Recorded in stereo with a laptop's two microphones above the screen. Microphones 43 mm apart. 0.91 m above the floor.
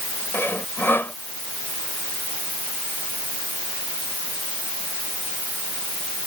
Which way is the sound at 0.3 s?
60° left (ahead or behind).